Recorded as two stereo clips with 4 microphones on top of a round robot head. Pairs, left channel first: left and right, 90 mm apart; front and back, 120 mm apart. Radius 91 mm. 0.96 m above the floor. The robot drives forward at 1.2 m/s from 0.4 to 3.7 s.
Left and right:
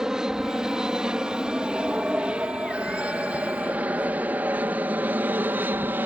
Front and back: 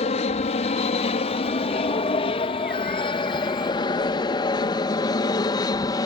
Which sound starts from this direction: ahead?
An aircraft, at 0.0 s.